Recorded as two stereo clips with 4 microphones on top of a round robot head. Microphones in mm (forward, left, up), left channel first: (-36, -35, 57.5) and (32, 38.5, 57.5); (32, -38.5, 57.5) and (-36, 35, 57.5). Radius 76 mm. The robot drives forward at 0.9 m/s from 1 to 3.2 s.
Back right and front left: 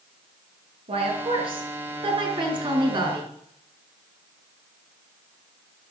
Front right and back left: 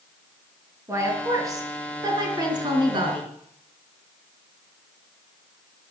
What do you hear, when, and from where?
0.9 s a woman speaking: 70° left, 6 m; by 3.3 s 95° left, 5.5 m